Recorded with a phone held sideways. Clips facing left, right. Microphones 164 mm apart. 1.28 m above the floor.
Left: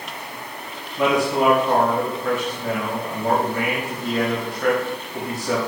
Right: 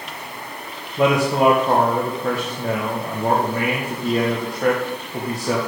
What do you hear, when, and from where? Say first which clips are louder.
1.0 s a man speaking: right 2 dB; 40° right (ahead or behind), 1.2 m